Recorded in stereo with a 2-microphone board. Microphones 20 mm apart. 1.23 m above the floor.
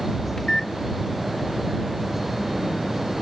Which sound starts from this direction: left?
A microwave, at 0.4 s.